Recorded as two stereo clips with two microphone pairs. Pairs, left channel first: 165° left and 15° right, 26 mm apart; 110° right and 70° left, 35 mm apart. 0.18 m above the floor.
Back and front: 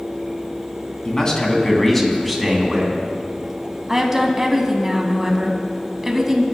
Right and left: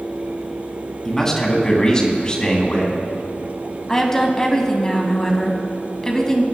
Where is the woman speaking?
80° right, 1.0 m.